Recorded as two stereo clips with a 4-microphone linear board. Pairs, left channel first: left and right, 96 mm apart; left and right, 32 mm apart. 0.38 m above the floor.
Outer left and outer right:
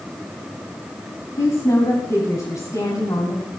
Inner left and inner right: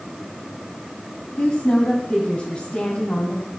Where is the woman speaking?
40° left (ahead or behind), 3 m.